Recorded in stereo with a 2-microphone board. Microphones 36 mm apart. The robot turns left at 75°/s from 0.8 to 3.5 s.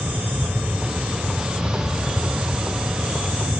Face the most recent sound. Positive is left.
No sound to turn to.